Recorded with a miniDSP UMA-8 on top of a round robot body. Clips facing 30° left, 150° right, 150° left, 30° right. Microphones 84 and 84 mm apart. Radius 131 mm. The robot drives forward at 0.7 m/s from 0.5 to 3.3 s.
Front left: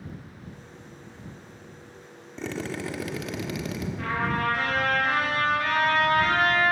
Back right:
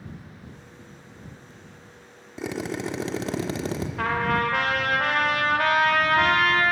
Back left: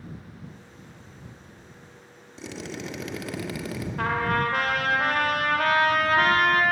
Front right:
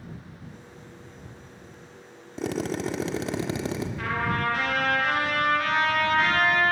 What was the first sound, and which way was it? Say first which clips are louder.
A drill: back right 2 dB, front right 8 dB; 70° right.